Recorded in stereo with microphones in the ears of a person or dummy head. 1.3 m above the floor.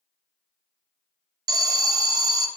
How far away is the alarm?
About 0.6 m.